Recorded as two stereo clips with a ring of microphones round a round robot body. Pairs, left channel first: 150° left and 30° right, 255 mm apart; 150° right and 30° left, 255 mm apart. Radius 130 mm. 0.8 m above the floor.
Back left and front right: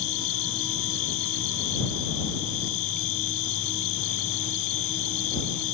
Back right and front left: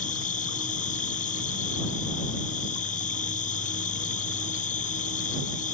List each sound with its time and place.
0.0 s an insect: 150° left